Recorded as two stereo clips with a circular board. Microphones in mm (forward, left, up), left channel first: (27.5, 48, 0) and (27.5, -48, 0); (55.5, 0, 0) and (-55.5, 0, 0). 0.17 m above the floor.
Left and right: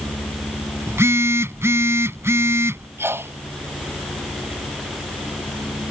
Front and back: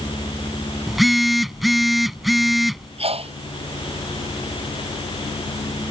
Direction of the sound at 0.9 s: 90° right.